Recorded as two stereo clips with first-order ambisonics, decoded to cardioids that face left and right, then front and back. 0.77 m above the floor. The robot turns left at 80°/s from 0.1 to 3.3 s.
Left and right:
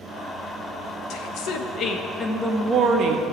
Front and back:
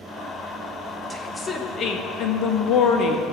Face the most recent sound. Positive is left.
turn(degrees=-75)